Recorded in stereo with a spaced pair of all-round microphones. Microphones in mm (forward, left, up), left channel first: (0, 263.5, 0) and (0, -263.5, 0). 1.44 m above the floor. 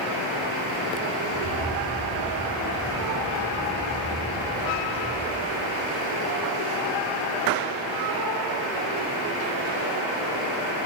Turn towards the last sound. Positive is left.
turn(degrees=0)  # may be behind; listen again after turning